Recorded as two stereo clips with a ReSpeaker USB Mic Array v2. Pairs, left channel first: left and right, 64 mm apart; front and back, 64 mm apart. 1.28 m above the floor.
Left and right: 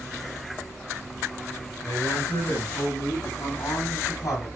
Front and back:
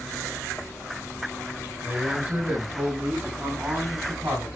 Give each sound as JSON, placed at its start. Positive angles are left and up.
{"t": 1.8, "sound": "a man speaking", "azimuth_deg": 115, "distance_m": 8.0}